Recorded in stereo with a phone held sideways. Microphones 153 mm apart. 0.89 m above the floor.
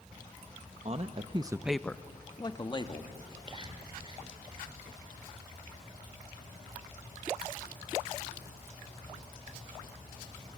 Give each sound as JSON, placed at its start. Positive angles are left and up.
{"t": 0.8, "sound": "a man speaking", "side_deg": -45, "distance_m": 0.9}
{"t": 3.2, "sound": "whispering", "side_deg": -35, "distance_m": 3.5}